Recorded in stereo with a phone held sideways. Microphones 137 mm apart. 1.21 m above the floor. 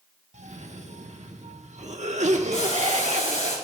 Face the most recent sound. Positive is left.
turn(degrees=70)  # may be behind; listen again after turning